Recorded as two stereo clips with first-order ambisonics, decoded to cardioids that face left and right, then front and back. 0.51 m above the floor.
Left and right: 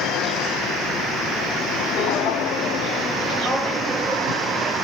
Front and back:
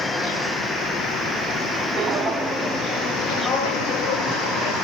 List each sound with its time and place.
2.0 s footsteps: 110° left, 1.0 m; by 4.7 s 5° right, 1.7 m